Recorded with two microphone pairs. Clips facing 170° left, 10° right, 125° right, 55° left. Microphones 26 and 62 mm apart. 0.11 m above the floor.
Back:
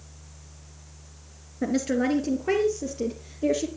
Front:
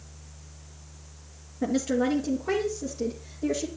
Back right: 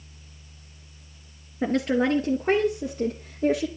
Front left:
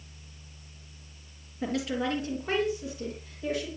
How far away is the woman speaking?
About 1.9 m.